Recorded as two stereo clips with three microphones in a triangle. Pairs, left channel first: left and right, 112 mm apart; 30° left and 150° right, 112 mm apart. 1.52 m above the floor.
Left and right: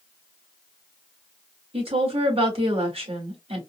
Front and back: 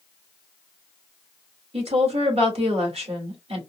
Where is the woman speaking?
120° right, 1.9 m.